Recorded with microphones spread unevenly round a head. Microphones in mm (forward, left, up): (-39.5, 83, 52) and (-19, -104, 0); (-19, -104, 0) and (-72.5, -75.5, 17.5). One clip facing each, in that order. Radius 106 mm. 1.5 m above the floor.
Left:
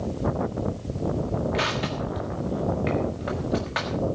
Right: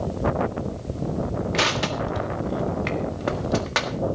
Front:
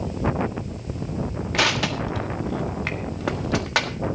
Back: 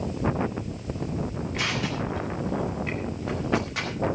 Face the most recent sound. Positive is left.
turn(degrees=-35)